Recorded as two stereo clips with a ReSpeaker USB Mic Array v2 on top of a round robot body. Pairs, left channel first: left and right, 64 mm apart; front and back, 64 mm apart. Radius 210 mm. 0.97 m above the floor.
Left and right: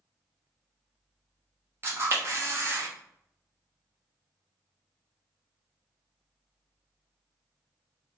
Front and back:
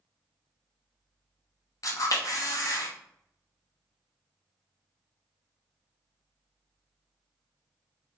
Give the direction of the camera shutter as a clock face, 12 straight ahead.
1 o'clock.